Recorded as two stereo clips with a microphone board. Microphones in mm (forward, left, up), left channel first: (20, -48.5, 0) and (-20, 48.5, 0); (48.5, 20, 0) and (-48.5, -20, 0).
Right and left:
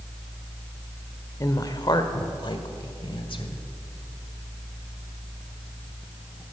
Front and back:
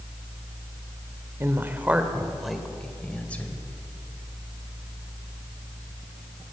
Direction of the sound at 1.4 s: 105° right.